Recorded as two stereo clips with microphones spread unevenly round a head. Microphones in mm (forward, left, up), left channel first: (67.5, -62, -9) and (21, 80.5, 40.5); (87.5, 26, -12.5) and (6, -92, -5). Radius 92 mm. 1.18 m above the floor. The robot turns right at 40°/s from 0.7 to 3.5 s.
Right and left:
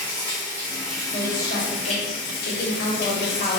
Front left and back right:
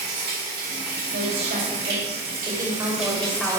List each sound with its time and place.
0.0 s running water: 170° right, 2.5 m; by 3.6 s 60° right, 2.5 m
1.1 s a woman speaking: 130° right, 2.5 m; by 3.6 s 35° right, 2.5 m